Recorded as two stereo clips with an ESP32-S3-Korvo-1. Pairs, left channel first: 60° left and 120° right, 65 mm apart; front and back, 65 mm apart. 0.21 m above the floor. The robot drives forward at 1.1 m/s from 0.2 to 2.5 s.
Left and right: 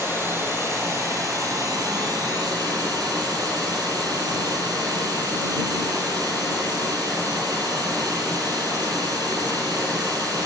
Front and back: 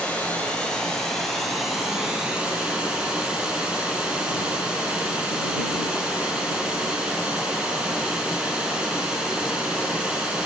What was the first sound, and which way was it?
Running water, 70° right.